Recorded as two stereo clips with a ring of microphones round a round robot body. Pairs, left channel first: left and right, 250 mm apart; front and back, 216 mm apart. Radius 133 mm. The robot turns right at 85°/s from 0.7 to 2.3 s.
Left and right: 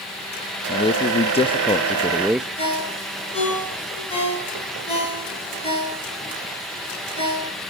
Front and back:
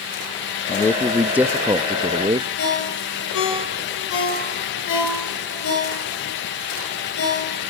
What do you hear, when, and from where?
0.7 s a man speaking: 50° left, 0.6 m; by 2.5 s 170° right, 0.6 m
2.6 s a ringtone: 20° left, 8.5 m